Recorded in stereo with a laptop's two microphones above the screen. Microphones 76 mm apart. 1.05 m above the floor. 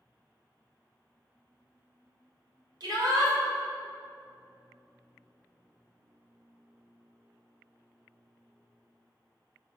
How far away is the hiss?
No hiss in this recording.